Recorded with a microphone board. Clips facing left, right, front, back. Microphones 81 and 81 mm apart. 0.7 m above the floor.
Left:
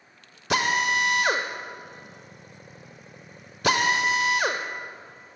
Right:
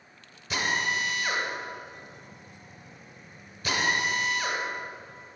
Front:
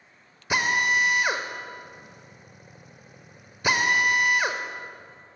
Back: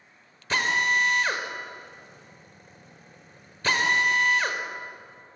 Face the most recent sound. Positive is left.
turn(degrees=75)